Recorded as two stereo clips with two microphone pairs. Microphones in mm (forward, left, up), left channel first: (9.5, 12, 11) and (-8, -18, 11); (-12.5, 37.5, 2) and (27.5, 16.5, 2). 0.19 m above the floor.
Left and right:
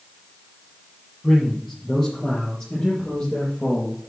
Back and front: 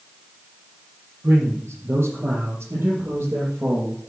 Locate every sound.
1.2 s a man speaking: 15° right, 6 m; by 4.0 s straight ahead, 5 m